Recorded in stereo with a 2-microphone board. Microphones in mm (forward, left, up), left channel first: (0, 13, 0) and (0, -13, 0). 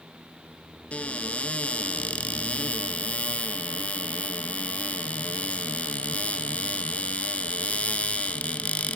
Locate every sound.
0.9 s a cupboard door: 55° left (ahead or behind), 1.4 m